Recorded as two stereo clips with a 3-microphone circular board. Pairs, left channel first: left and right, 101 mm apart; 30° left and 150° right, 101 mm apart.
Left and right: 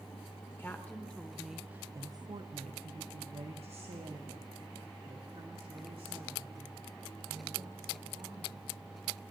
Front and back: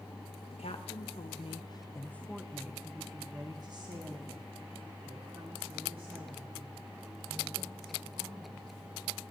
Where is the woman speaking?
20° left, 1.2 m; by 8.9 s 125° right, 4.5 m.